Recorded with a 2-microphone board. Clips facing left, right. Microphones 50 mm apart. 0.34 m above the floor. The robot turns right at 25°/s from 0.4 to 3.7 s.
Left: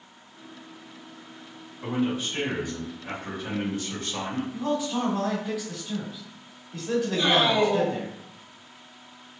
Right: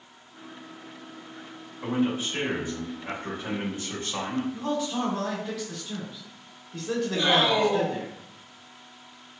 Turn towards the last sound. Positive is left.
turn(degrees=-15)  # may be behind; listen again after turning